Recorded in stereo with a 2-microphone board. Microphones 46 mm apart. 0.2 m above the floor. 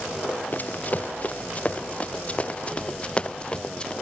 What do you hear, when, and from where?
0.5 s running footsteps: 40° left (ahead or behind); by 3.9 s 20° left (ahead or behind)